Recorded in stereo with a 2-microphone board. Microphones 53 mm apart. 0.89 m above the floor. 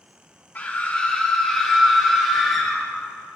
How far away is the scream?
About 1.7 m.